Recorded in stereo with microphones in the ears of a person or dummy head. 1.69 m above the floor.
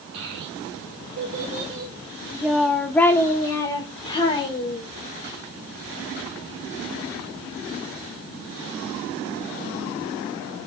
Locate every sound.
0.1 s a child speaking: 70° right (ahead or behind), 1.3 m; by 4.9 s 30° left (ahead or behind), 2 m